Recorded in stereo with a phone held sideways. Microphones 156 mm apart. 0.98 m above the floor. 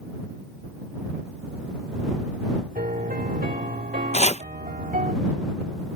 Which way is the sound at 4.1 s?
45° left (ahead or behind).